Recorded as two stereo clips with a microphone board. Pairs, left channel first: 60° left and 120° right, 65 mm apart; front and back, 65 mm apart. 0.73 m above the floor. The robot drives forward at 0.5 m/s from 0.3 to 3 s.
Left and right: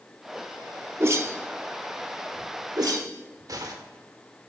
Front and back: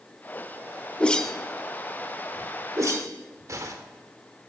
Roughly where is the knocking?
I don't hear knocking.